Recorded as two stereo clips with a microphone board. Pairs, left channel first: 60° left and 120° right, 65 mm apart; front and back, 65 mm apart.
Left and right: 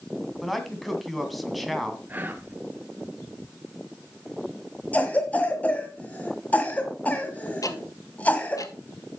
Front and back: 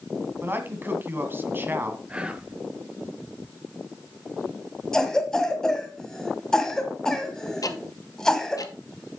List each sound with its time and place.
0.4 s a man speaking: 150° left, 2 m
2.1 s whispering: 130° right, 1.2 m
4.9 s a cough: 65° left, 1.4 m
7.6 s ticking: 30° left, 1.0 m